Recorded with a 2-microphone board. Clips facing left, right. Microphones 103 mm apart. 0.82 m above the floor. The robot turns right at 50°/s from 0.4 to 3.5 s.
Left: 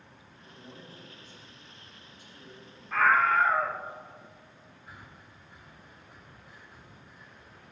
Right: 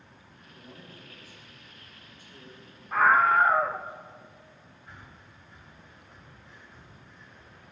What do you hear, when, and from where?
0.4 s a man speaking: 150° left, 6.5 m; by 2.6 s 100° right, 6.5 m
2.9 s a scream: 20° right (ahead or behind), 0.7 m; by 3.9 s 25° right (ahead or behind), 0.7 m
4.9 s breathing: 10° left (ahead or behind), 4.5 m